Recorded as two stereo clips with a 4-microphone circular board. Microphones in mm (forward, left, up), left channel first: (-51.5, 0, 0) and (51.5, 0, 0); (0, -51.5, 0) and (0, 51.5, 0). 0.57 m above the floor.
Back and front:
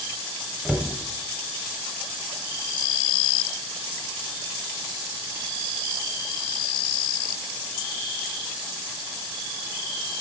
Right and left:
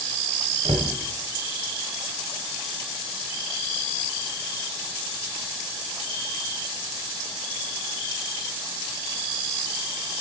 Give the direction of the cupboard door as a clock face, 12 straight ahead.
9 o'clock.